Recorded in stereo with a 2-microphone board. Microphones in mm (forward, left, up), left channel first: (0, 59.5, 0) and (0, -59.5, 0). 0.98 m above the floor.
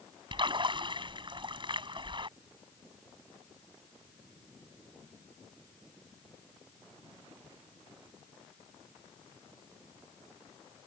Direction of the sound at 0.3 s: 40° right (ahead or behind).